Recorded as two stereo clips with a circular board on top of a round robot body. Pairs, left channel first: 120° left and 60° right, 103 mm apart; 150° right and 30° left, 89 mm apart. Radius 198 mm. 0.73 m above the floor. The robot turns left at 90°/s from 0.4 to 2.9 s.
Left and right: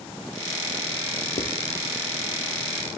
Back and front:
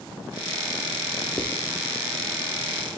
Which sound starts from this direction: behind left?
Writing, at 1.4 s.